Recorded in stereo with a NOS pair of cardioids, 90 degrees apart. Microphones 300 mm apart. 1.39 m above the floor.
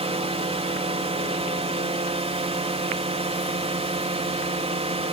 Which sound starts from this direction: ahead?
A drone, at 0.0 s.